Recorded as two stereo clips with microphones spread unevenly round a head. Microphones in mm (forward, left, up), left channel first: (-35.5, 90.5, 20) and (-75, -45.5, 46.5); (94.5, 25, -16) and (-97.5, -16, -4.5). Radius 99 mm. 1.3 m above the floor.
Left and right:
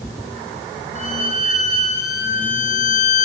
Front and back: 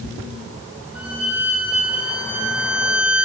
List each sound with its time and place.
0.9 s a violin: 110° left, 9.5 m